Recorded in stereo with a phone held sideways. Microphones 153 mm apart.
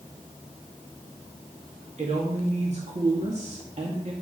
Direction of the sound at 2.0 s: 50° right (ahead or behind).